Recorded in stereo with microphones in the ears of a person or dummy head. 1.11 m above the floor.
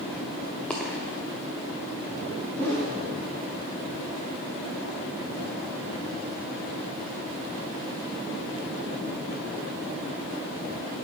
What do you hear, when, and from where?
0.7 s a dropped coin: 5° left (ahead or behind), 0.7 m
2.5 s a whoosh: 10° left (ahead or behind), 1.9 m